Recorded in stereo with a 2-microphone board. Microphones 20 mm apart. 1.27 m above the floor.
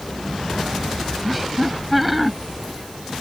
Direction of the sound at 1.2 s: Centre (ahead or behind).